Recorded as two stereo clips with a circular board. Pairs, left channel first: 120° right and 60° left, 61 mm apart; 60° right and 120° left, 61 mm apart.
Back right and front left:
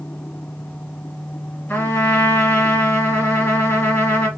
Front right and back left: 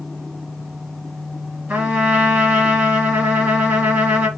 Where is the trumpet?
170° right, 1.7 m.